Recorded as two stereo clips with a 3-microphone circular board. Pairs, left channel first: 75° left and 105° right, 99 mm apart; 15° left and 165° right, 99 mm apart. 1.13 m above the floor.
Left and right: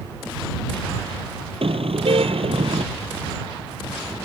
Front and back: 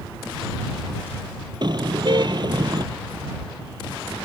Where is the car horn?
125° right.